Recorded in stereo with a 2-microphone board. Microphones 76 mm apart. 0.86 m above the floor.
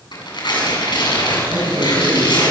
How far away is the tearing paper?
About 7.5 m.